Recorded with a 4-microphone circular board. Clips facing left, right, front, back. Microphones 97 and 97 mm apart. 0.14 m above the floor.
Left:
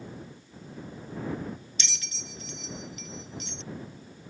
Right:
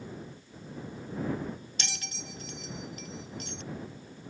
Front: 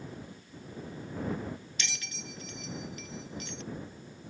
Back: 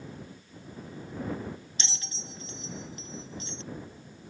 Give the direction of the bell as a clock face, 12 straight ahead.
4 o'clock.